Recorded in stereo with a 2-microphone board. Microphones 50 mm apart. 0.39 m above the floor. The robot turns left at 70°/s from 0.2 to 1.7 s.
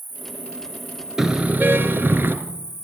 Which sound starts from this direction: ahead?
A car horn, at 1.2 s.